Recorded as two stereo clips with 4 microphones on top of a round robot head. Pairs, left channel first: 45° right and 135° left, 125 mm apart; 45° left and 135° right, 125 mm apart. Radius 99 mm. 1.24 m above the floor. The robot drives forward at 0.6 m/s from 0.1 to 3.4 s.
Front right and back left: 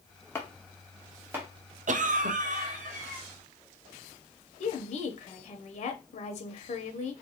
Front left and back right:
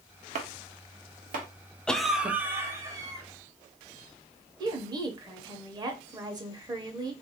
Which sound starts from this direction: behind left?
A cough, at 1.9 s.